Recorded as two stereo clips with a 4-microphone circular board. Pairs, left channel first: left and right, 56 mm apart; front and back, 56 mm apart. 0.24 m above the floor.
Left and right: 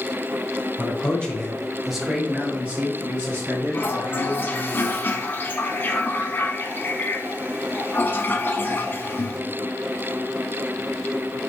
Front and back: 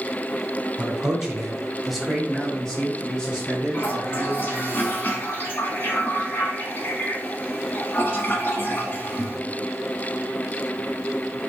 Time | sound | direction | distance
0.8 | a man speaking | 120° left | 1.2 m
3.7 | a toilet flushing | 45° left | 1.0 m